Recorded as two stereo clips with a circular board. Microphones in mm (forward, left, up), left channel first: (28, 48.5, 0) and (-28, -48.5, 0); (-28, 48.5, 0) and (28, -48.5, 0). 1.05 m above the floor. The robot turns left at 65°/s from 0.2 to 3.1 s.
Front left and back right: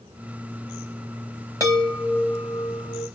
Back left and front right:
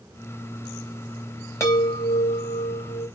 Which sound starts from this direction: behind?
A chime, at 1.6 s.